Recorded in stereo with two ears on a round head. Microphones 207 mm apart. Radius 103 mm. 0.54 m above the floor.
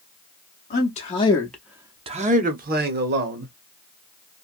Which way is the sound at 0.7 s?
35° left (ahead or behind).